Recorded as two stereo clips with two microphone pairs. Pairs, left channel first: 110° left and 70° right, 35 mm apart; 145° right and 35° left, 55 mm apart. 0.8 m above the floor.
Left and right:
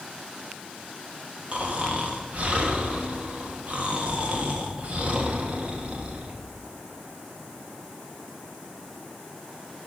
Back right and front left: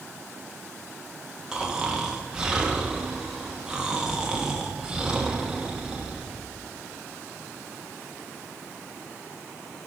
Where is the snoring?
40° right, 1.4 m.